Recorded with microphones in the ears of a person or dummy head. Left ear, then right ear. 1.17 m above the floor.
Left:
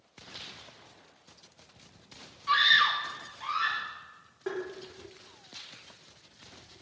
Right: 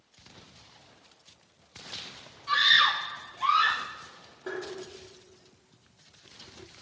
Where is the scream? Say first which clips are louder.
Right 1 dB; 15° left (ahead or behind), 0.6 m; by 3.9 s 35° right (ahead or behind), 1.0 m.